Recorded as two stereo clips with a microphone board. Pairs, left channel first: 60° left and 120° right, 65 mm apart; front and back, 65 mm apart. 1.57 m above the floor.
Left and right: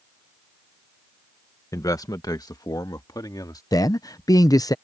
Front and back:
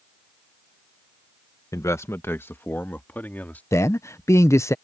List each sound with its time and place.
1.7 s a man speaking: 30° left; by 3.6 s 65° left
3.7 s a man speaking: 40° left